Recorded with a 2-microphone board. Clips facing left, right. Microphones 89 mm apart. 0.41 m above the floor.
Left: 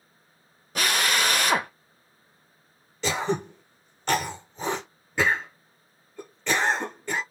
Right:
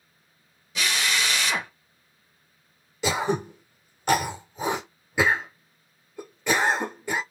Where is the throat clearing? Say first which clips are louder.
Right 1 dB; 10° right (ahead or behind), 1.1 m.